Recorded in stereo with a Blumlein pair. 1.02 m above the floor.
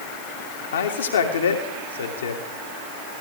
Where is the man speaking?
65° left, 2.5 m.